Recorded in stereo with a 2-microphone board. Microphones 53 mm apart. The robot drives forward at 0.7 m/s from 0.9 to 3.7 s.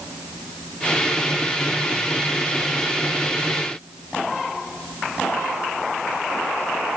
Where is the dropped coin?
No dropped coin in this recording.